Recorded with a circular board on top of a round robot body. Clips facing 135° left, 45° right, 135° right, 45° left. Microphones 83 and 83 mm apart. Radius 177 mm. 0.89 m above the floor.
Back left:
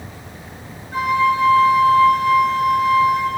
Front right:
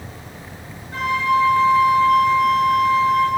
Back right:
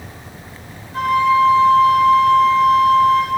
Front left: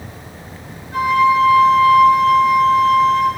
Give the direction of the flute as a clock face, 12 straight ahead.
10 o'clock.